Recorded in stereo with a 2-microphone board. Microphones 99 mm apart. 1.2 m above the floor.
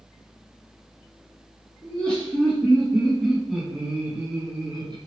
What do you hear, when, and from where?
1.8 s laughter: 15° left (ahead or behind), 1.8 m; by 5.0 s 50° right (ahead or behind), 0.8 m